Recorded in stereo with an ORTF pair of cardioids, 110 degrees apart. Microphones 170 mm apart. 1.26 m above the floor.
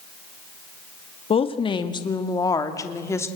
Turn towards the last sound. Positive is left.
turn(degrees=15)